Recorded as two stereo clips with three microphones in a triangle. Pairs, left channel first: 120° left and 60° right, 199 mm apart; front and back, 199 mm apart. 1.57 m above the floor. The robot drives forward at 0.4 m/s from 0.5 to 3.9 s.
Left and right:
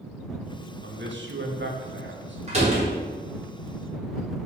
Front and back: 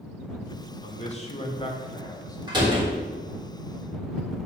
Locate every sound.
0.8 s a man speaking: 50° right, 1.6 m; by 2.4 s 70° right, 1.2 m
2.5 s a door slam: 115° right, 3 m